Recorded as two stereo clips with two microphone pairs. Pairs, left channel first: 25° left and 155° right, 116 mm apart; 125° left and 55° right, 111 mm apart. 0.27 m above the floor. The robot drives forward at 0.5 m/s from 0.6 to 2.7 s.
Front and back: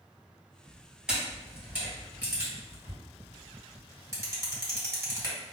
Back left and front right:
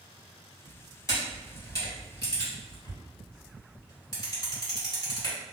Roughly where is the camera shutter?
Behind left.